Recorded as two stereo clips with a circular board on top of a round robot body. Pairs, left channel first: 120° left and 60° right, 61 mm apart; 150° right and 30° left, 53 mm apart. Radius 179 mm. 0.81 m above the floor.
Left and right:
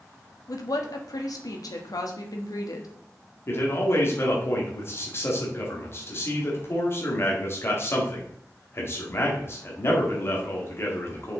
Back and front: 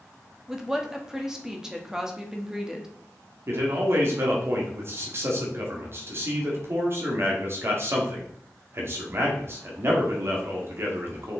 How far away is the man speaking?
About 2.0 m.